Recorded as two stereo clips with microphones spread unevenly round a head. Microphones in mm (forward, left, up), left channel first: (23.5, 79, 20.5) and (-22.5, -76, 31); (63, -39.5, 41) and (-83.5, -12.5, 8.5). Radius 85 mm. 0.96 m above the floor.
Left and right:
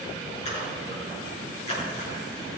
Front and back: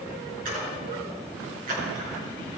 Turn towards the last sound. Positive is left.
turn(degrees=125)